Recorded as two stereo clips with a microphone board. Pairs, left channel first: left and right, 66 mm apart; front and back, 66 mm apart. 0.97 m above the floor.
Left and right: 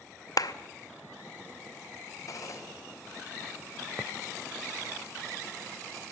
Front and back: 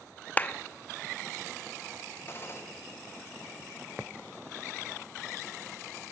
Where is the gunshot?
55° left, 4 m.